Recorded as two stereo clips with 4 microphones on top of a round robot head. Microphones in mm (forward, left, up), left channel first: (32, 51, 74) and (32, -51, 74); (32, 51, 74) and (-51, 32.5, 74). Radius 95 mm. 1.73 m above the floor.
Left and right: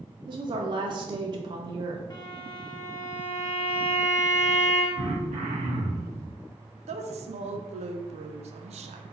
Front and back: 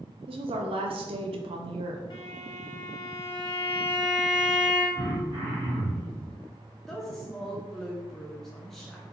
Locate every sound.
0.3 s a woman speaking: 140° right, 0.6 m
2.1 s a violin: 35° left, 1.4 m
5.0 s throat clearing: 115° right, 0.7 m
6.9 s a woman speaking: 75° right, 0.6 m